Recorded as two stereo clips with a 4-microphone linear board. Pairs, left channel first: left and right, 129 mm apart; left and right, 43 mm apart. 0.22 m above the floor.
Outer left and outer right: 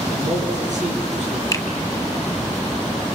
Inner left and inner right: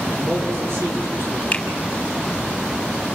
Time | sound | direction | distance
0.1 | a man speaking | 70° right (ahead or behind) | 4.5 m
1.5 | a finger snap | 25° left (ahead or behind) | 1.6 m